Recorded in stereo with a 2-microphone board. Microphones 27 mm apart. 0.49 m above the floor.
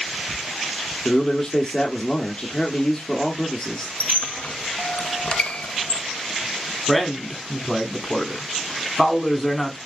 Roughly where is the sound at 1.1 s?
Left.